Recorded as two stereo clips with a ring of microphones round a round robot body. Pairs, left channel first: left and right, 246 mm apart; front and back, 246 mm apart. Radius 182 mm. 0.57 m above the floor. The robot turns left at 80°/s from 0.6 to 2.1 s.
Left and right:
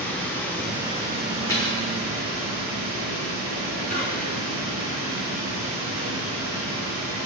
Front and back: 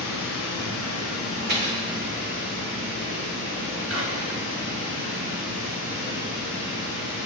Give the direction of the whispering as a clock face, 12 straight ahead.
7 o'clock.